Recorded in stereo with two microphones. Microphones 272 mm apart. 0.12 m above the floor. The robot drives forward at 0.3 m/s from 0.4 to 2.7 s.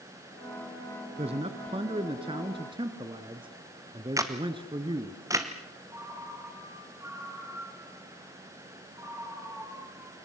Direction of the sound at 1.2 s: 20° right (ahead or behind).